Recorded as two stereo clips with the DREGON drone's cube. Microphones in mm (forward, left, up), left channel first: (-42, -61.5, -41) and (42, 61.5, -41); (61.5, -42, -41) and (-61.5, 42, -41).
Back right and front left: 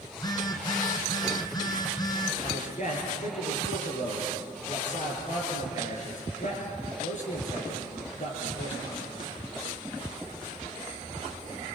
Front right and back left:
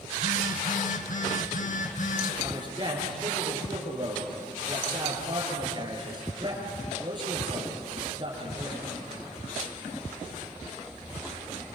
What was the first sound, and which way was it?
A phone buzzing, 60° right.